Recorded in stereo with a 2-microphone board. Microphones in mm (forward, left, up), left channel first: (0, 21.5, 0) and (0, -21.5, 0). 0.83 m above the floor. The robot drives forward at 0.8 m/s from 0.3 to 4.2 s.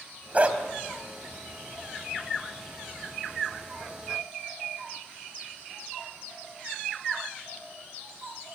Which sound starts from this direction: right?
A dog barking, at 0.3 s.